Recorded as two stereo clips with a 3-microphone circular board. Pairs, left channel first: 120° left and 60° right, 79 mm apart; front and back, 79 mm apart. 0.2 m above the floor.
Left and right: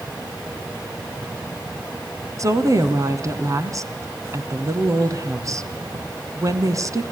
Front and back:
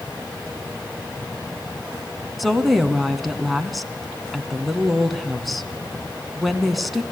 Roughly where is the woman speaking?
Right.